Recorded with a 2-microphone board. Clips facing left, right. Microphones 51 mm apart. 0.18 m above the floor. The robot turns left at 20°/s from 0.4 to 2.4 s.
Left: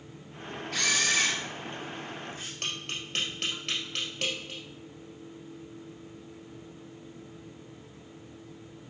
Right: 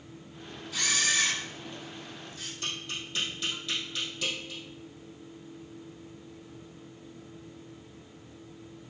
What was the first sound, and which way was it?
A camera shutter, 65° left (ahead or behind).